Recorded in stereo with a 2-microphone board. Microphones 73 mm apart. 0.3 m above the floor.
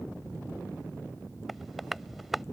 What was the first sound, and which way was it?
Tapping, centre (ahead or behind).